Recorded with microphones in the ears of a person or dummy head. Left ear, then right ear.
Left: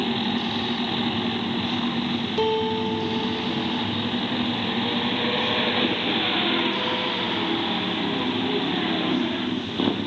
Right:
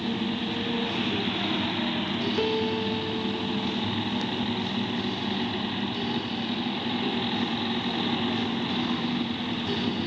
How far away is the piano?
About 1.8 m.